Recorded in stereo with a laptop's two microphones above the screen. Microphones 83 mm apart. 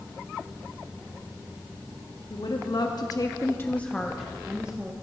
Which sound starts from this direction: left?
A woman speaking, at 2.3 s.